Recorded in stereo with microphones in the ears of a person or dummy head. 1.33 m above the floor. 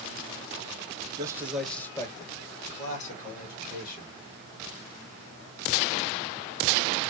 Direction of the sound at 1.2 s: 20° right (ahead or behind).